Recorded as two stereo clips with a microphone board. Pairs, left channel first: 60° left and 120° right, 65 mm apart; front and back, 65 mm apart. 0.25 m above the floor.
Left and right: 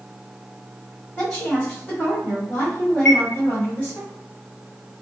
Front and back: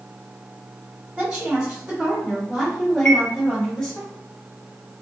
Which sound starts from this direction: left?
A chime, at 3.0 s.